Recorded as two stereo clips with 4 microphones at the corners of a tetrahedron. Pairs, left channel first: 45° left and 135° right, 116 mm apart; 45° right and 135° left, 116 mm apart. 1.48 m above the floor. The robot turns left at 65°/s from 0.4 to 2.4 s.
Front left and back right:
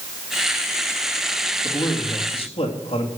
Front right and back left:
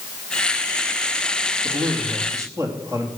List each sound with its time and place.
1.6 s a man speaking: 120° left, 3 m; by 3.1 s 70° left, 3 m